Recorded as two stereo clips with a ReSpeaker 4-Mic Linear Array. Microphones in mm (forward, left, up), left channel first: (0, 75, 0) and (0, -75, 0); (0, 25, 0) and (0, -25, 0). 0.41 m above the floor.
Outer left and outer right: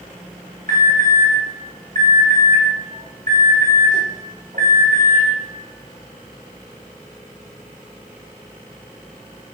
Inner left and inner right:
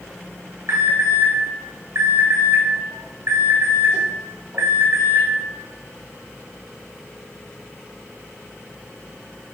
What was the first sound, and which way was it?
An alarm, 60° right (ahead or behind).